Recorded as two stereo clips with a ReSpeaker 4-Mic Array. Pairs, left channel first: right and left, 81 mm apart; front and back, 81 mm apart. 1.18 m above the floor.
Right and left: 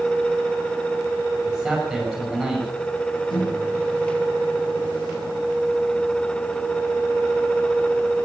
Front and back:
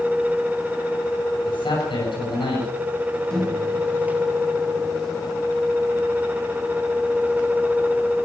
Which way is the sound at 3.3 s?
80° right.